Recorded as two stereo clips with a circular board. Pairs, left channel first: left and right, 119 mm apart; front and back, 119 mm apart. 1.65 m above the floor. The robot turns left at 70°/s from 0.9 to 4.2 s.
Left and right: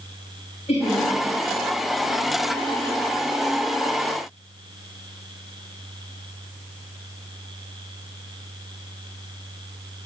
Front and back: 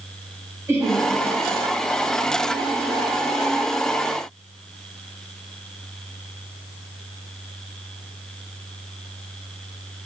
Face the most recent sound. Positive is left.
turn(degrees=-120)